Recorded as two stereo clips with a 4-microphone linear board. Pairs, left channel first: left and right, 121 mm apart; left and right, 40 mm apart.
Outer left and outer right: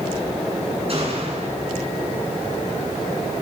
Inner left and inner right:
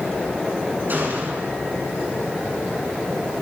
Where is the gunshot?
50° right (ahead or behind), 10 m.